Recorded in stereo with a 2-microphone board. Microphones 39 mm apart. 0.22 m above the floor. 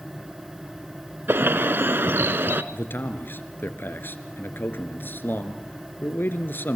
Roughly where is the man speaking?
Left.